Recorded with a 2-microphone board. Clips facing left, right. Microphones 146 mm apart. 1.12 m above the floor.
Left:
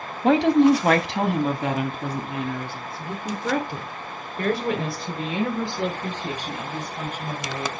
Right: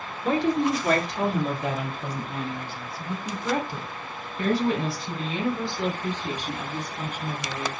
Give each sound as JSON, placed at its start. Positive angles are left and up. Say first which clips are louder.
{"t": 0.2, "sound": "a woman speaking", "louder": "left 7 dB", "side_deg": 90, "distance_m": 1.0}